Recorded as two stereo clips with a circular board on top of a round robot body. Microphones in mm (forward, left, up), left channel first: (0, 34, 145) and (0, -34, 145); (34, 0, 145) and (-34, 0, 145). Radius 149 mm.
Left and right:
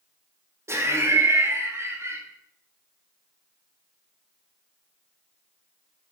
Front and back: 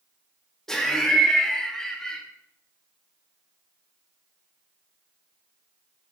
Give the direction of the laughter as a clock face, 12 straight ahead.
3 o'clock.